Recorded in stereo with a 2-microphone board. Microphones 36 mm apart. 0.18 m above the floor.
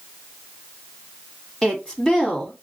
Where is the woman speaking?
20° left (ahead or behind), 1.0 m.